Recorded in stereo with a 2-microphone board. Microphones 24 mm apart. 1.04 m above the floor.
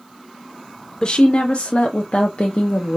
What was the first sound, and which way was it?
A woman speaking, 35° left (ahead or behind).